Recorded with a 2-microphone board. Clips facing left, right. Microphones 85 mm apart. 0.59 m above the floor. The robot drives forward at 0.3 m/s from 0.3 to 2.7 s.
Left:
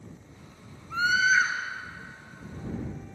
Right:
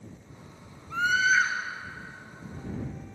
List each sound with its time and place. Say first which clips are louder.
0.9 s a scream: left 1 dB; 5° left (ahead or behind), 3.5 m